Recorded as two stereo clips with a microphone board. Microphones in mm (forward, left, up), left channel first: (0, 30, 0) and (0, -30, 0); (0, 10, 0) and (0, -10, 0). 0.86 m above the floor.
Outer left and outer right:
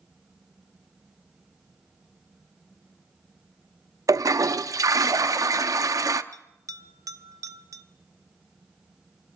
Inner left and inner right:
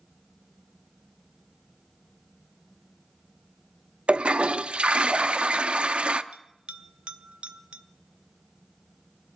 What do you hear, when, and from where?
4.1 s a toilet flushing: 75° right (ahead or behind), 0.6 m
6.3 s a bell: 70° right (ahead or behind), 0.8 m